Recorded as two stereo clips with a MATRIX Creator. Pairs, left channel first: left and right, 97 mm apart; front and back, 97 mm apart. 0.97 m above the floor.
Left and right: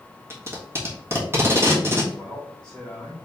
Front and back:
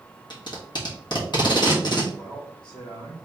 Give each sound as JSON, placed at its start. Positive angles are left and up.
{"t": 0.3, "sound": "tape being pulled", "azimuth_deg": -30, "distance_m": 1.3}
{"t": 2.1, "sound": "a man speaking", "azimuth_deg": 10, "distance_m": 1.5}